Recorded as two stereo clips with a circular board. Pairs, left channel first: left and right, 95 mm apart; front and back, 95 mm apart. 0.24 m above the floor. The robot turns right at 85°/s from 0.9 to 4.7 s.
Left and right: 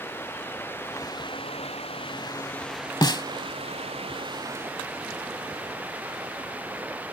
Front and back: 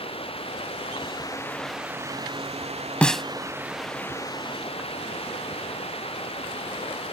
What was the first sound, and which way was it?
Running water, 20° left.